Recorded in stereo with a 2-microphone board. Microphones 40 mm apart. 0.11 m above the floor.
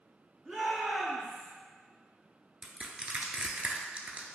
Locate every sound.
0.5 s a shout: 20° right (ahead or behind), 1.5 m
2.6 s crushing: 35° right (ahead or behind), 0.6 m